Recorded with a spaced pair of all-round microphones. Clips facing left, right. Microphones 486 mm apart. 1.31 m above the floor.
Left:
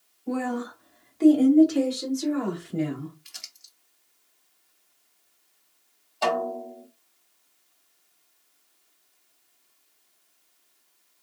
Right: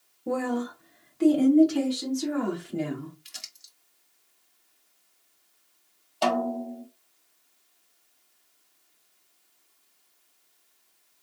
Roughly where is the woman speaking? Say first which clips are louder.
Right 1 dB; right.